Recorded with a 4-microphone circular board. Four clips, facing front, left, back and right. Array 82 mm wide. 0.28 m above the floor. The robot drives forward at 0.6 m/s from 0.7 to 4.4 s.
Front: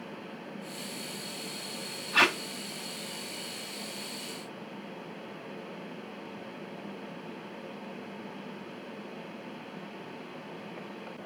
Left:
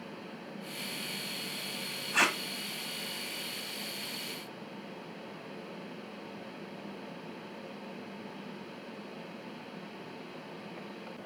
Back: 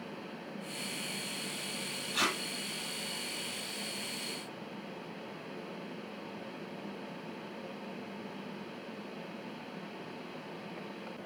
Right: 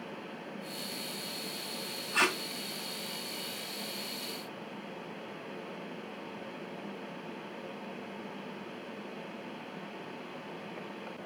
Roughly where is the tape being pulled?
Ahead.